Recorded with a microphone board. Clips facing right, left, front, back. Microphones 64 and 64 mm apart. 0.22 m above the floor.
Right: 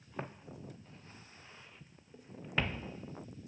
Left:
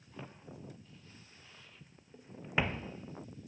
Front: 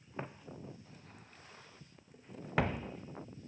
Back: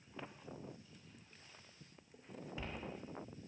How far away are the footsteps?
About 1.6 m.